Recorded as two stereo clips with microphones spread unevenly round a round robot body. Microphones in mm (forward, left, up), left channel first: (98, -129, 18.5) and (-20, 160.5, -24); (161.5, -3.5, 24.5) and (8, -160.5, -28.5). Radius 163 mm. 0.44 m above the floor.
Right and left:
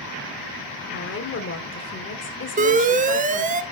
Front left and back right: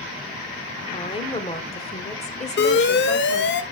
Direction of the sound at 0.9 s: 25° right.